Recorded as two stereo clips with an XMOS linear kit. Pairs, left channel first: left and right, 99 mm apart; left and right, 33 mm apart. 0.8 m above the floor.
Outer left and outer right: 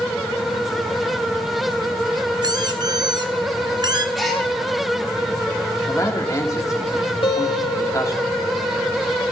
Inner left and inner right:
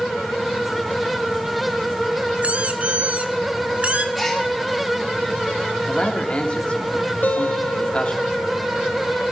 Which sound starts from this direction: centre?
A gasp, at 4.2 s.